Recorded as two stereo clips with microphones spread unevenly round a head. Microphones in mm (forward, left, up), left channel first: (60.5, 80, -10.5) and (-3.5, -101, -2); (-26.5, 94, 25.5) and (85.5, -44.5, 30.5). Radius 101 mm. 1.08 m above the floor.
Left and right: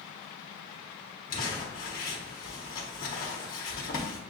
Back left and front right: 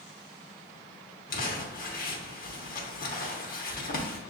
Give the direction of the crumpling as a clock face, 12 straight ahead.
8 o'clock.